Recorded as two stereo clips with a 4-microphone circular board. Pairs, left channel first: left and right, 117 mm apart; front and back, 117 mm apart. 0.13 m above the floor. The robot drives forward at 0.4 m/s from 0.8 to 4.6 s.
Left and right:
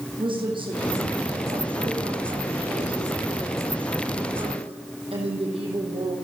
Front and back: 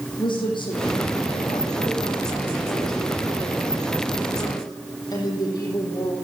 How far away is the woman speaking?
About 7.5 m.